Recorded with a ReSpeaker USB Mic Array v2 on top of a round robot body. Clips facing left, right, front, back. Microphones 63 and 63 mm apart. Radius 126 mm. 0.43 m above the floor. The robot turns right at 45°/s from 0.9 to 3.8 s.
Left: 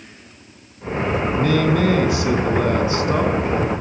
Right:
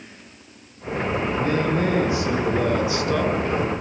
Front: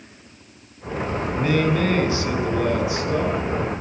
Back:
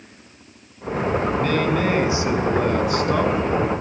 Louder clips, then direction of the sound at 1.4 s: Left 5 dB, even; 75° left.